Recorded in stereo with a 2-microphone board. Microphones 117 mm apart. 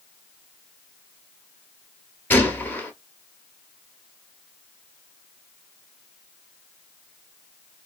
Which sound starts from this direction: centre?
A gunshot, at 2.3 s.